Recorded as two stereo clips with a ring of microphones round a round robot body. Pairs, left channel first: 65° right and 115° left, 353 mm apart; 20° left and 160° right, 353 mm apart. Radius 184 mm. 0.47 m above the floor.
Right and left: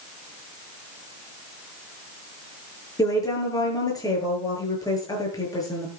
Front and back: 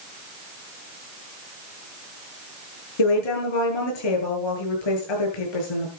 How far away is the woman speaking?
About 8.5 m.